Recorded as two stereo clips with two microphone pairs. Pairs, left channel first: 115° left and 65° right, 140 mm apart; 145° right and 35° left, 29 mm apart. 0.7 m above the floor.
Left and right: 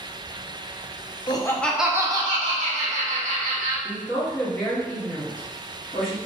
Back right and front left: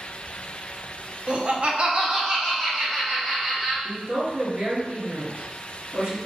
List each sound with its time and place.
1.3 s laughter: 70° left, 0.6 m; by 3.7 s 45° right, 1.6 m
3.8 s a woman speaking: 25° left, 1.6 m